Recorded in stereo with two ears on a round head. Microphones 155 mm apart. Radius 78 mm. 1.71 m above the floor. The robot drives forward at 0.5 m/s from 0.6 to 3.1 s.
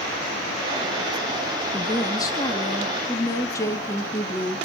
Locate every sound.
1.7 s a woman speaking: 25° left (ahead or behind), 2 m; by 4.6 s 20° left (ahead or behind), 3 m